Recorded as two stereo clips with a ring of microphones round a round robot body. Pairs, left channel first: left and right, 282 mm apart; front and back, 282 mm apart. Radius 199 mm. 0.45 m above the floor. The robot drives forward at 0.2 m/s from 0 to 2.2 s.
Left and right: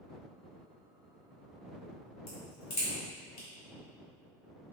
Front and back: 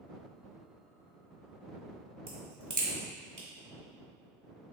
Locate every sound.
2.3 s a crack: 130° left, 1.6 m